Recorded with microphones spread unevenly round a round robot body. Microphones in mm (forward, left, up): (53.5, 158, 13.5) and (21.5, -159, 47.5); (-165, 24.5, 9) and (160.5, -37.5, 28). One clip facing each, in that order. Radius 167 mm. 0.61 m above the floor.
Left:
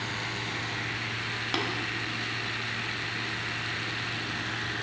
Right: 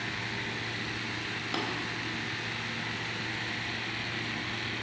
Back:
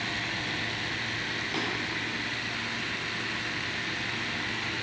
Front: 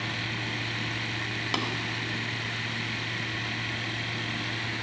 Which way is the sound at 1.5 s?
5° left.